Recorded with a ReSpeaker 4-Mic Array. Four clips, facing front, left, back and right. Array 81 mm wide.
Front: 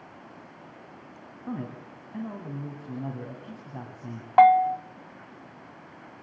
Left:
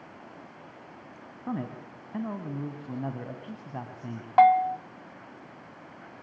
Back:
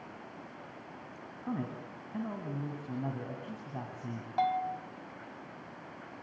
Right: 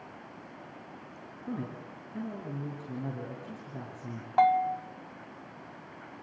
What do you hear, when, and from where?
1.5 s a man speaking: 90° left, 2 m
4.4 s a bell: 20° left, 0.5 m